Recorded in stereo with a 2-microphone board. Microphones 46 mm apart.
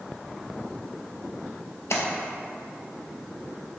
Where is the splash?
80° left, 0.6 m.